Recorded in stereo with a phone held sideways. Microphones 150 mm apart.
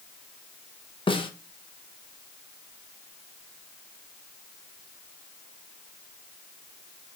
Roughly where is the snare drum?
Left.